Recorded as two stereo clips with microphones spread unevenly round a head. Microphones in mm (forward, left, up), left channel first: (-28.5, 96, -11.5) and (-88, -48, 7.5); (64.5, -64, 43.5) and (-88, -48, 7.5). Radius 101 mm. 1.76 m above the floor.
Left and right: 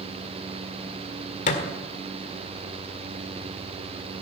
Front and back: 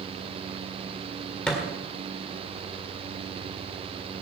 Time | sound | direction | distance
1.5 | a thud | 55° left | 1.7 m